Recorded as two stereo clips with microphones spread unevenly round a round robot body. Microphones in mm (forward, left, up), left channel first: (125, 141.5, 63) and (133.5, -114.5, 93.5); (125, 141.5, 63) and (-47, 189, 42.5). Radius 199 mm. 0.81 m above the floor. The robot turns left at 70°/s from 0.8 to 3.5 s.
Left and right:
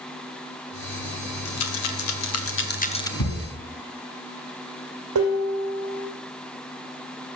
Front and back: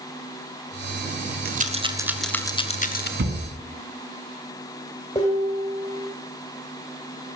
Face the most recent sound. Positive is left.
turn(degrees=-85)